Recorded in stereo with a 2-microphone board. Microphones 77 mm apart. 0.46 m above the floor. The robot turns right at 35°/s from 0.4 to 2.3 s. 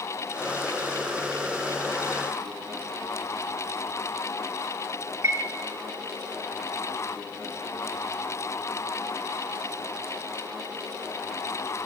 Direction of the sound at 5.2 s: 40° right (ahead or behind).